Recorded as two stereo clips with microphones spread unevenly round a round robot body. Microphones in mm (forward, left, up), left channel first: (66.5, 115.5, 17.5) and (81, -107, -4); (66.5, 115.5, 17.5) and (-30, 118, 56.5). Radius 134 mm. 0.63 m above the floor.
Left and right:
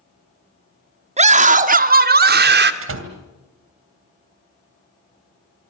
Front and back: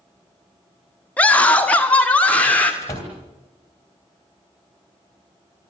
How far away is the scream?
About 1.6 m.